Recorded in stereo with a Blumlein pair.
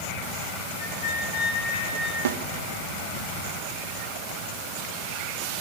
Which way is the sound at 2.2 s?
60° right.